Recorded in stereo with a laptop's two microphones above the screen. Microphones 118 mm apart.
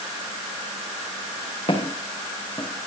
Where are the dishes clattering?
I don't hear dishes clattering.